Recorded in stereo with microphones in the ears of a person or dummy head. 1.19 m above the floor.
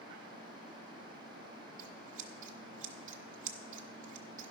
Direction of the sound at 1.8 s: 45° right (ahead or behind).